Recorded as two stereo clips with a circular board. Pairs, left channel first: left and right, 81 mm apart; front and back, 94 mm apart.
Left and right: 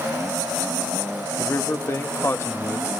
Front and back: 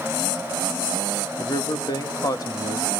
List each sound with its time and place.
1.4 s a man speaking: 40° left, 1.7 m